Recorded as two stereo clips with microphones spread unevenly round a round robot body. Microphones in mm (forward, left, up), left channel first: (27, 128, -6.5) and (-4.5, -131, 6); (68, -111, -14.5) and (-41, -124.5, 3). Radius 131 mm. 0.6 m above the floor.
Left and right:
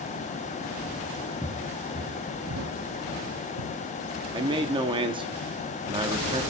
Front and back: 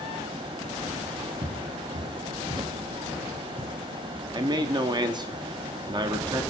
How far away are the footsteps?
About 1.2 m.